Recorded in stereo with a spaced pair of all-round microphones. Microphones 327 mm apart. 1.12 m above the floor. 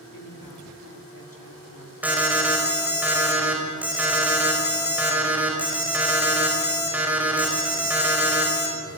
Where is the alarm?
5° right (ahead or behind), 6 m.